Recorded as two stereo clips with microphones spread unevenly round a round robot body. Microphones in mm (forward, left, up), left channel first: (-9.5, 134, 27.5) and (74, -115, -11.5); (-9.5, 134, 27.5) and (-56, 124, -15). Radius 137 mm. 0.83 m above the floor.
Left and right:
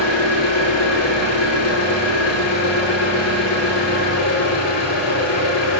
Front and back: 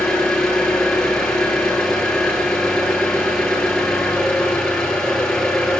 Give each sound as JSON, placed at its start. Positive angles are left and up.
{"t": 0.0, "sound": "an engine running", "azimuth_deg": 85, "distance_m": 9.0}